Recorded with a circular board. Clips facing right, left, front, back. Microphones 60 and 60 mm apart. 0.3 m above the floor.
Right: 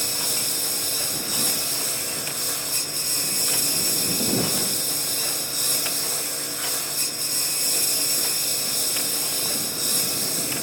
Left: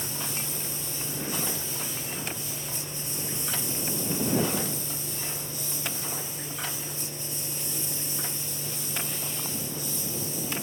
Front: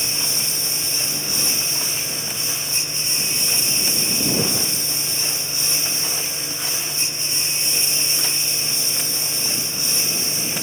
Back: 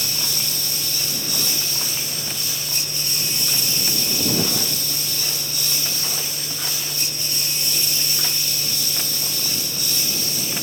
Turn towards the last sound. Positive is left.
turn(degrees=-65)